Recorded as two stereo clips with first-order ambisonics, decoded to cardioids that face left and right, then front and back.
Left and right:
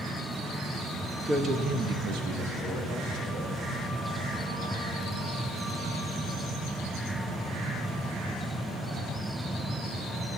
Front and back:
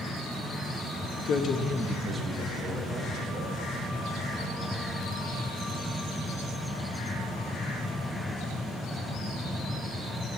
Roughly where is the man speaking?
Ahead.